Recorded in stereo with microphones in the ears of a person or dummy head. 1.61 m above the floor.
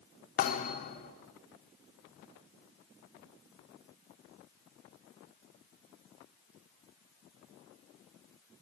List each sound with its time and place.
0.4 s a thud: 40° left (ahead or behind), 1.9 m